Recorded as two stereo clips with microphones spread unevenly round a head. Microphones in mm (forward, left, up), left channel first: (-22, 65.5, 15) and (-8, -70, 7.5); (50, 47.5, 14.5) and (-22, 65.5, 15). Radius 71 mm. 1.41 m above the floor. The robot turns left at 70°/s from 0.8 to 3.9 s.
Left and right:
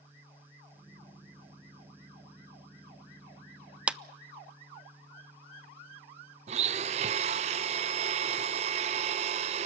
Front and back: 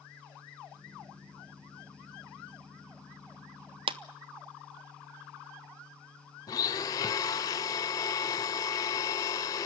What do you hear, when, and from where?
3.9 s a clap: 165° right, 0.6 m
6.5 s a blender: 50° right, 0.6 m